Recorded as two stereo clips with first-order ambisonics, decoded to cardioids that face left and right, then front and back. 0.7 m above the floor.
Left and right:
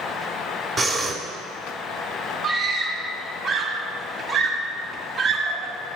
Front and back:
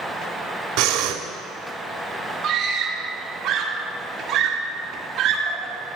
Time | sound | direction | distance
0.8 | breathing | 165° right | 1.3 m
2.4 | a scream | 145° right | 1.6 m